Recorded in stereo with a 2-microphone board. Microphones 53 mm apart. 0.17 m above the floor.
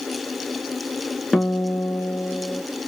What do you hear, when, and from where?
1.3 s a guitar: centre (ahead or behind), 1.0 m